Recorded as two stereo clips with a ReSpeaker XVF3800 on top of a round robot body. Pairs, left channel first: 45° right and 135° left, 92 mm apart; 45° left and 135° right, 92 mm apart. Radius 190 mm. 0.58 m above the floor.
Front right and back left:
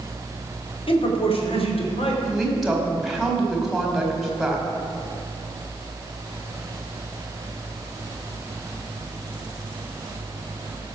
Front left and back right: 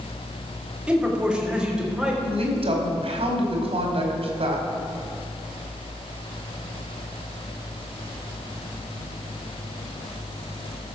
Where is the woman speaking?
135° right, 2.5 m.